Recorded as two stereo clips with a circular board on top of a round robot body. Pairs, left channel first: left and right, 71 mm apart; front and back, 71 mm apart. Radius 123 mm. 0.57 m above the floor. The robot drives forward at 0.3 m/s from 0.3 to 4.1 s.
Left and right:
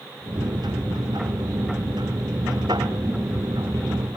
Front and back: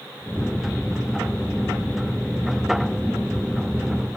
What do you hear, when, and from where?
Only background noise.